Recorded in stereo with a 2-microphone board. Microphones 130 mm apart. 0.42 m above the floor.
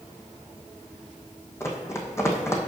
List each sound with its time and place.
1.6 s running footsteps: 20° left (ahead or behind), 1.2 m